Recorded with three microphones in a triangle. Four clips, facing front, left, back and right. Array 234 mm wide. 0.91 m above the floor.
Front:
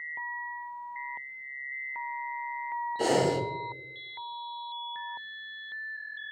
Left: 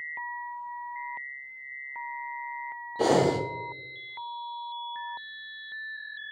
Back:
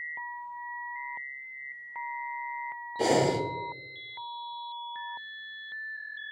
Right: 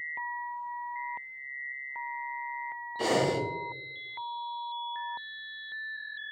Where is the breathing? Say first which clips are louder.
Left 4 dB, back 1 dB; 95° left, 0.6 m.